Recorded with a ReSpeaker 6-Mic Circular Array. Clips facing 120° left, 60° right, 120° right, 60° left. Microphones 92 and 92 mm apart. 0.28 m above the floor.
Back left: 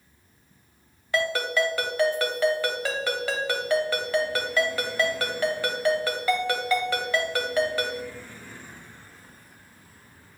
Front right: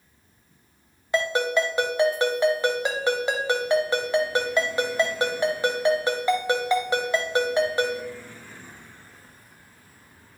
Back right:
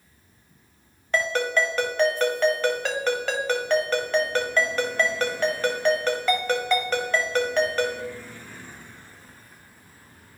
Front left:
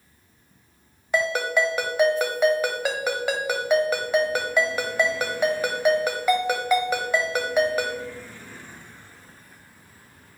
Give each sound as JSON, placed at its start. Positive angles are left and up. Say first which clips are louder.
{"t": 1.1, "sound": "a ringtone", "louder": "front right 2 dB, front left 1 dB", "azimuth_deg": -10, "distance_m": 0.9}